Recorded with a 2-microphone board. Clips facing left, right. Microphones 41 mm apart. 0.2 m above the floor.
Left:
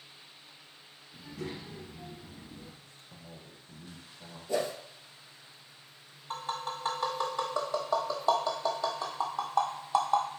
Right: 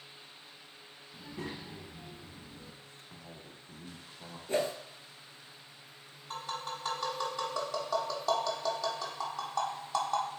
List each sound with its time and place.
1.1 s a child speaking: 45° right (ahead or behind), 1.1 m; by 2.7 s 30° left (ahead or behind), 0.9 m
2.8 s a man speaking: 30° right (ahead or behind), 1.1 m
4.5 s a whoosh: 40° right (ahead or behind), 1.2 m
6.3 s tapping: 15° left (ahead or behind), 1.2 m